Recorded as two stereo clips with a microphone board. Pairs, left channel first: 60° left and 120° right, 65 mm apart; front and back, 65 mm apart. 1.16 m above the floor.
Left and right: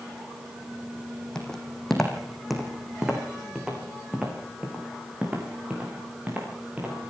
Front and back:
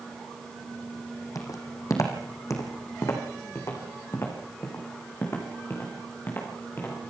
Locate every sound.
1.4 s footsteps: 20° right, 4 m; by 7.1 s 55° right, 8 m